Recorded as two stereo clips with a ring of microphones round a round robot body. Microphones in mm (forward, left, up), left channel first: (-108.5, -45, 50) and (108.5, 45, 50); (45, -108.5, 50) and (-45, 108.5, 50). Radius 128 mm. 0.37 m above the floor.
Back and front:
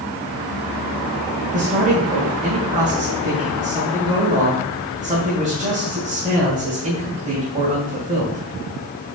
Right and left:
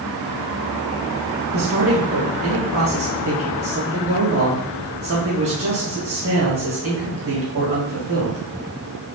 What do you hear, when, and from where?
1.5 s a man speaking: 80° left, 2.5 m